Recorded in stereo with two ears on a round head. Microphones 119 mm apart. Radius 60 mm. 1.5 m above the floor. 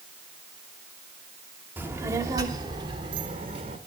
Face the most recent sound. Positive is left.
turn(degrees=-45)  # may be behind; listen again after turning